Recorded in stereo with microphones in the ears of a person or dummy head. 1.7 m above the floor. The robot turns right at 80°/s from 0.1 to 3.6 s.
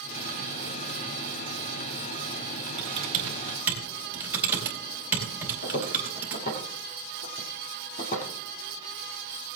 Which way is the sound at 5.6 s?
55° left (ahead or behind).